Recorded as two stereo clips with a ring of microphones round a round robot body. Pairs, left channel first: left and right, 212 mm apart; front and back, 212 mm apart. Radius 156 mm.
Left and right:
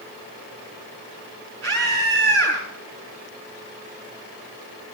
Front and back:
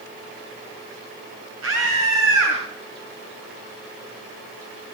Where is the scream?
140° right, 6 m.